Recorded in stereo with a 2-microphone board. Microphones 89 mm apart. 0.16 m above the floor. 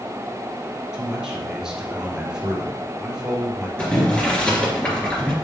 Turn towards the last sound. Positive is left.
turn(degrees=15)  # may be behind; listen again after turning